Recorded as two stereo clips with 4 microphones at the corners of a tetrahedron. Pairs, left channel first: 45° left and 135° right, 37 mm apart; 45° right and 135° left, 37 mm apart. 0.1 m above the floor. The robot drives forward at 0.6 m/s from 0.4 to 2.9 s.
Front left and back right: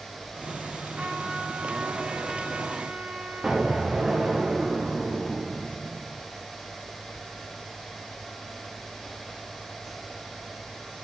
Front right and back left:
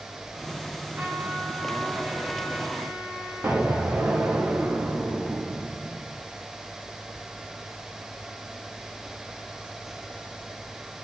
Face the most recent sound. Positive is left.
turn(degrees=150)